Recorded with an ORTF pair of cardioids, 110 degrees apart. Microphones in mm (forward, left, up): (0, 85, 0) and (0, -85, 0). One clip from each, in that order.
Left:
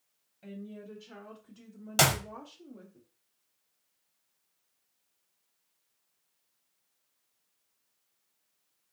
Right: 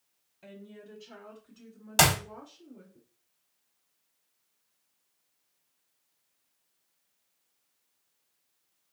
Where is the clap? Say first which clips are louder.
Right 2 dB; 5° right, 1.0 m.